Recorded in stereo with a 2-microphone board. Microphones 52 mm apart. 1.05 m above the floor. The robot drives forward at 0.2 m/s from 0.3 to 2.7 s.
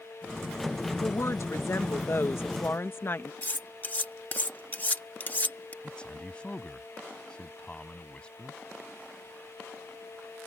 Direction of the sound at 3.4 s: 35° left (ahead or behind).